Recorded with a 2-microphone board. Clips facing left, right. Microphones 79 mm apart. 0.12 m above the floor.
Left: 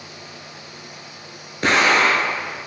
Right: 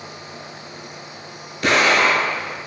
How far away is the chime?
I don't hear a chime.